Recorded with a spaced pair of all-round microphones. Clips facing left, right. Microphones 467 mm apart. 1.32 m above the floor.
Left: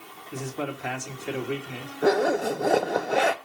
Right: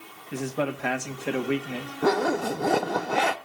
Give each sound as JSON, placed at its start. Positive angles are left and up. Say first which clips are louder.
{"t": 0.3, "sound": "a man speaking", "louder": "right 4 dB", "side_deg": -80, "distance_m": 1.9}
{"t": 2.0, "sound": "a zipper", "louder": "left 2 dB", "side_deg": -20, "distance_m": 0.8}